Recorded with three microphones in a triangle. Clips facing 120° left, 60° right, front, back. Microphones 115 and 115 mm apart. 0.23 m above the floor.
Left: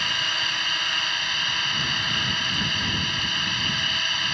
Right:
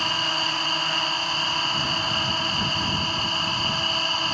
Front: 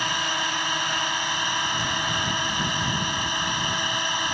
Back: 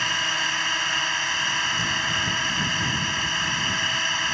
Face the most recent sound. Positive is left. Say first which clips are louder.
# right 4 dB, front 1 dB
turn(degrees=-60)